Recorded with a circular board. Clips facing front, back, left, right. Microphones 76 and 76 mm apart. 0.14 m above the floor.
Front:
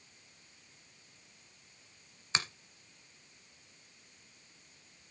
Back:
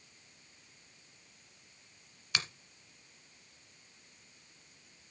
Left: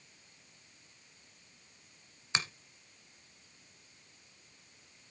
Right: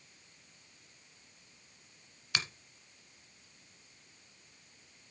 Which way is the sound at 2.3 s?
45° left.